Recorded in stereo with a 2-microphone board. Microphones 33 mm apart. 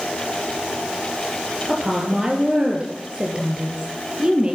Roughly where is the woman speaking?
Right.